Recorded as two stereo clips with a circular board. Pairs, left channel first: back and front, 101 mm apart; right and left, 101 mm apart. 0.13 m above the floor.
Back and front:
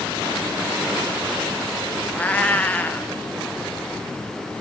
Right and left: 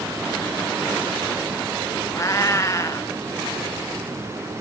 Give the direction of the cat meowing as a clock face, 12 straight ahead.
4 o'clock.